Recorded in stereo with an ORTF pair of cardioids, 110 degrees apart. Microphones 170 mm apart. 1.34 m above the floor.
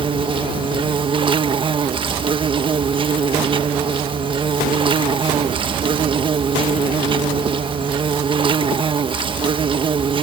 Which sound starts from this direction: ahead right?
An insect, at 0.0 s.